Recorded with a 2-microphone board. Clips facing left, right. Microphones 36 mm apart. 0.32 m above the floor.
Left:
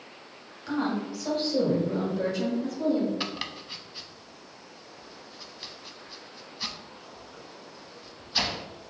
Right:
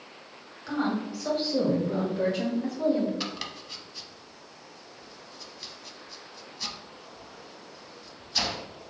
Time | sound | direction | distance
0.7 | a woman speaking | centre (ahead or behind) | 1.8 m
3.2 | chopping | 20° left (ahead or behind) | 0.6 m